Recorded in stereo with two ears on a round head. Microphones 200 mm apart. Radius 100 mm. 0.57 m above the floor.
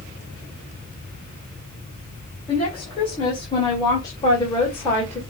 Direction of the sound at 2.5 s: 25° left (ahead or behind).